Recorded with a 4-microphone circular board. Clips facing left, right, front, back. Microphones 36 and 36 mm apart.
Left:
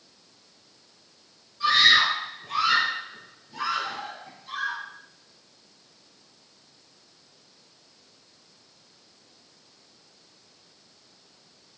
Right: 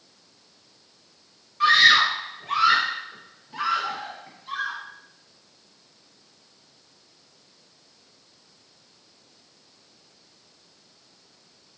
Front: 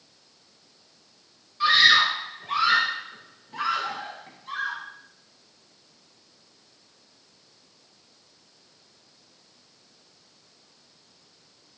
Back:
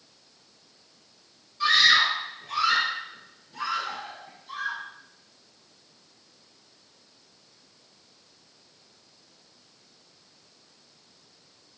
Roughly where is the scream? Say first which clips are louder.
Right 3 dB, front 2 dB; right.